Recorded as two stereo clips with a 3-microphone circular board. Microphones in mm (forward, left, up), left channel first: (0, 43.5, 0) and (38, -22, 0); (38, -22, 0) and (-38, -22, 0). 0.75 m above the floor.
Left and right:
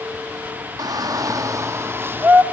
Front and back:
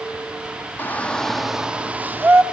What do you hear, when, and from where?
0.8 s a shout: 60° right, 1.1 m; by 2.4 s 120° right, 1.7 m